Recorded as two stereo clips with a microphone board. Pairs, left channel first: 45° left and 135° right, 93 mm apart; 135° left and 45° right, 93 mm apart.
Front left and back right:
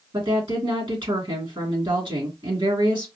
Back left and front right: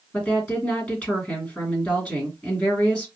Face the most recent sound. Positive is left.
turn(degrees=-145)